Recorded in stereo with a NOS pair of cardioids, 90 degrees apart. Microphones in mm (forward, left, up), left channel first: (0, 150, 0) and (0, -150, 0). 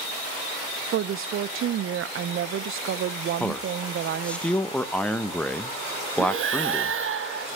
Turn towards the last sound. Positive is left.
turn(degrees=-45)